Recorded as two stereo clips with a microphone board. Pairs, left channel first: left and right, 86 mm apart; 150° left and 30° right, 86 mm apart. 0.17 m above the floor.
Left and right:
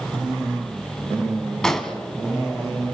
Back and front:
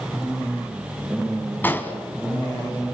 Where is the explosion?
165° left, 1.7 m.